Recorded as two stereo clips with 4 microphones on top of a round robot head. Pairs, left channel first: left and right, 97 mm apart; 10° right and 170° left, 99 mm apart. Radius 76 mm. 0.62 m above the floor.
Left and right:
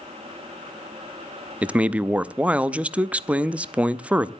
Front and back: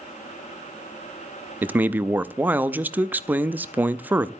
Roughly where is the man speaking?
Behind right.